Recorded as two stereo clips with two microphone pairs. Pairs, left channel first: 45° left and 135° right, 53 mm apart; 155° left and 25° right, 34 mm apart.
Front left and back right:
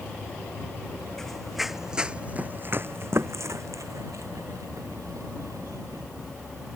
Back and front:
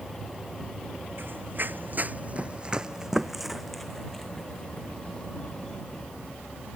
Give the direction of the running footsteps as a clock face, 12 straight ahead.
1 o'clock.